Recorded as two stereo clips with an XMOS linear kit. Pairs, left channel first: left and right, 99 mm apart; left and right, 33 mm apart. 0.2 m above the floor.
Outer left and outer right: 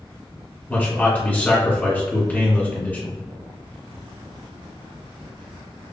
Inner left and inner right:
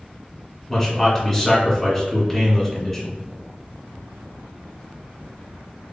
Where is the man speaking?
15° left (ahead or behind), 1.8 m.